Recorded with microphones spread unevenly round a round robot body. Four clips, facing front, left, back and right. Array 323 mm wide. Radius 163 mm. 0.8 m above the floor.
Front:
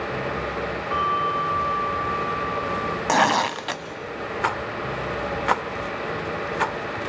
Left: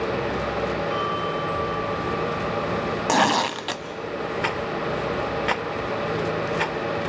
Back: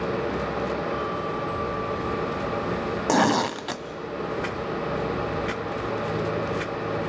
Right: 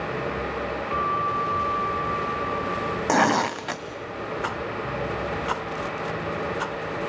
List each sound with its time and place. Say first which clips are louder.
0.9 s a bell: right 1 dB, front 5 dB; 25° right, 2 m
3.1 s tearing paper: even, front 1 dB; 165° right, 0.6 m
4.4 s a rattle: left 3 dB, front 2 dB; 15° left, 1.0 m